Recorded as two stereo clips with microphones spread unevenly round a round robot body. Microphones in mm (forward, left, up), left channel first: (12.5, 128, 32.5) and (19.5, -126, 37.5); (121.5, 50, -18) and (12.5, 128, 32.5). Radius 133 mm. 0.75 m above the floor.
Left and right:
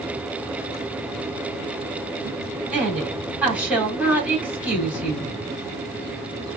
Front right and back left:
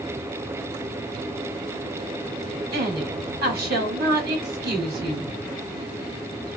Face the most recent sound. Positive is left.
turn(degrees=-175)